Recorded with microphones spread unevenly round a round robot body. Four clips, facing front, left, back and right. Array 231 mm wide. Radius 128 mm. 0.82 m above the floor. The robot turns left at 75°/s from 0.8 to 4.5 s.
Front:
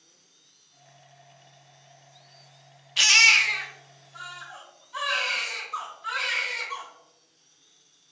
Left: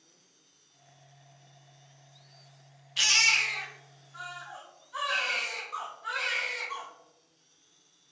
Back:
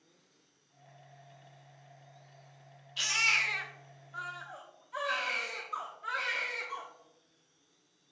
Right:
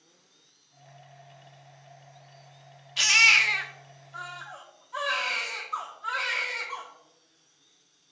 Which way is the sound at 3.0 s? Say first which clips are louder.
Right 6 dB, front 9 dB; 20° right.